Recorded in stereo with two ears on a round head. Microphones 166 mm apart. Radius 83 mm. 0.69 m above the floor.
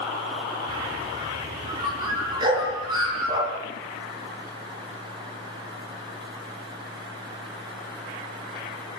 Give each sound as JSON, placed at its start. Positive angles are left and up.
{"t": 0.7, "sound": "a bird", "side_deg": -25, "distance_m": 6.5}
{"t": 2.4, "sound": "a dog barking", "side_deg": -25, "distance_m": 8.0}